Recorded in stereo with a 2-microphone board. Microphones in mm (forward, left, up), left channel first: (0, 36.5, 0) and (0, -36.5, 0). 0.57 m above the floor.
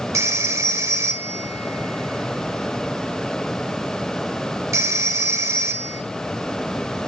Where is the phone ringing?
45° right (ahead or behind), 1.3 m.